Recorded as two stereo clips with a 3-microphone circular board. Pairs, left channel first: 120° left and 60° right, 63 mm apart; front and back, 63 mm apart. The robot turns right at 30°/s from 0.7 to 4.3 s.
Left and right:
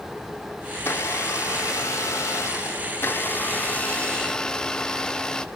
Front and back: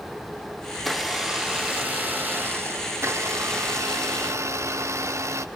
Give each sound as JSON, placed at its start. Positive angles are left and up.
{"t": 0.8, "sound": "a blender", "azimuth_deg": 90, "distance_m": 0.8}